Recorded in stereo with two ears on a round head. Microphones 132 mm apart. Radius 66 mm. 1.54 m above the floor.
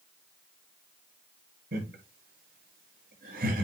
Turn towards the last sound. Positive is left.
turn(degrees=-70)  # may be behind; listen again after turning